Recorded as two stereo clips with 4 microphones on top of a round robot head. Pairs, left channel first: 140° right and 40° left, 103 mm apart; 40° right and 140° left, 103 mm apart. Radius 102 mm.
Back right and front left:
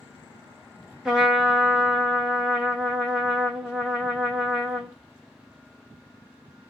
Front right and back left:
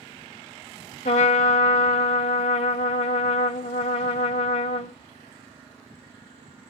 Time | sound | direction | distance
1.1 | a trumpet | 45° right | 0.6 m